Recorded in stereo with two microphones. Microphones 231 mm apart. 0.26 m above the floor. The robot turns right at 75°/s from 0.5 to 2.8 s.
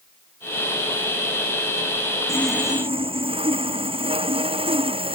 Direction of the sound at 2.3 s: 165° left.